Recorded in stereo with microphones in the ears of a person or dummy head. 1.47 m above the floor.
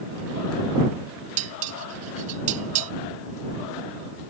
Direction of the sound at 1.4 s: 45° right (ahead or behind).